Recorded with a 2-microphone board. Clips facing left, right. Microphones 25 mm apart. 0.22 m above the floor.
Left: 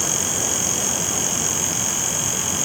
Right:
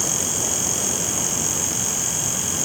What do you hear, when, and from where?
Only background noise.